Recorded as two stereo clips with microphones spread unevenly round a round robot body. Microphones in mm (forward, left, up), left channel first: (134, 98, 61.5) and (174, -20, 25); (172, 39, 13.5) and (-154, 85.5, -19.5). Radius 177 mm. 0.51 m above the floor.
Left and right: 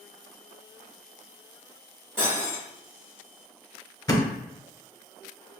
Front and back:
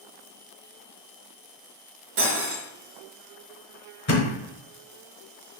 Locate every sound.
2.2 s cutlery clinking: 140° right, 0.8 m
4.1 s a thud: 40° left, 0.8 m